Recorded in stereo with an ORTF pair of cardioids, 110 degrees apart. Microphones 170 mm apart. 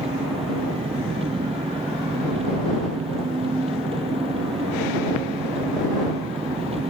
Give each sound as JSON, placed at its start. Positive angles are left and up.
{"t": 0.0, "sound": "an engine running", "azimuth_deg": -35}